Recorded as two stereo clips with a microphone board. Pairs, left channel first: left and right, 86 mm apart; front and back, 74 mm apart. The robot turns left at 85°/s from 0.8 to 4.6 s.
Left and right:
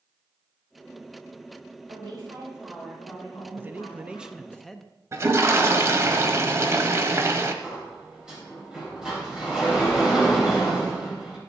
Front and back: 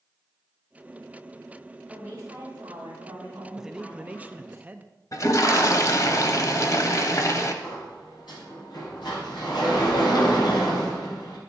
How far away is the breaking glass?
I don't hear breaking glass.